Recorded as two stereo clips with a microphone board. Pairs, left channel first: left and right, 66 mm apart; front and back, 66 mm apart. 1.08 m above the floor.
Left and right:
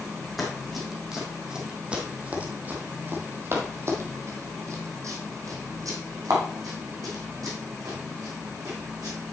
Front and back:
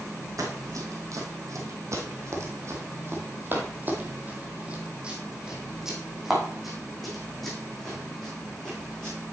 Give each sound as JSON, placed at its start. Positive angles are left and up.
{"t": 0.4, "sound": "running footsteps", "azimuth_deg": 180, "distance_m": 2.5}